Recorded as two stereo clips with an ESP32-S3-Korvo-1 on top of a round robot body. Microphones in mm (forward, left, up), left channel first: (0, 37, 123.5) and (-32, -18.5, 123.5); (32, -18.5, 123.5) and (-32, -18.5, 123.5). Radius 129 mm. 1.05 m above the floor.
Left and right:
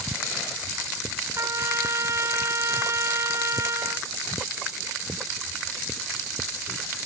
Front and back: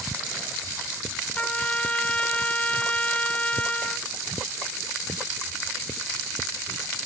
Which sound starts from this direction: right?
A trumpet, at 1.4 s.